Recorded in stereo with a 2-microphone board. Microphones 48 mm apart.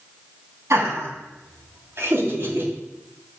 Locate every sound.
0.7 s laughter: 60° right (ahead or behind), 3.5 m; by 2.7 s 45° right (ahead or behind), 3 m